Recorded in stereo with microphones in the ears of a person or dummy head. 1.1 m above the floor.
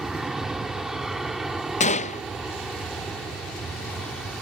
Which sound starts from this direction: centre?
An aircraft, at 0.0 s.